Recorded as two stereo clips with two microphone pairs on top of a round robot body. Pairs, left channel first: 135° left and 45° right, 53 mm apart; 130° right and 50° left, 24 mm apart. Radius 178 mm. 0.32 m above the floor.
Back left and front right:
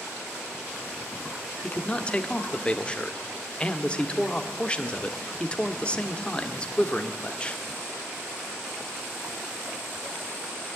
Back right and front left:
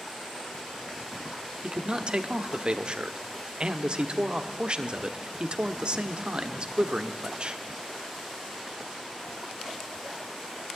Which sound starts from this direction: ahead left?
A man speaking, at 1.6 s.